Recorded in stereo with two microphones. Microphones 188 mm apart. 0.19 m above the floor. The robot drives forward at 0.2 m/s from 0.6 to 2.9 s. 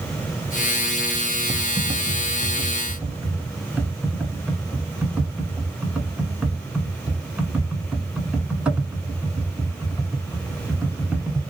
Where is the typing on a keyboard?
10° right (ahead or behind), 0.7 m; by 11.4 s 5° right (ahead or behind), 0.9 m.